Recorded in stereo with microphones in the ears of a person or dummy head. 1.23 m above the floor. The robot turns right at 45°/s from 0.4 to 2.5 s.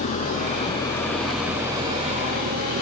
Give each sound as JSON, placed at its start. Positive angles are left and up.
{"t": 0.0, "sound": "an engine running", "azimuth_deg": 135}